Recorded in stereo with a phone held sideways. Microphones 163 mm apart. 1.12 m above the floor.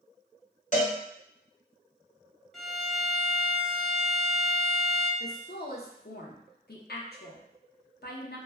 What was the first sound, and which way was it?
A cowbell, 50° left (ahead or behind).